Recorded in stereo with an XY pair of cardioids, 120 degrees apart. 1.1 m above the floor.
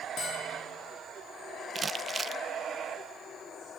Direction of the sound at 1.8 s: 25° right.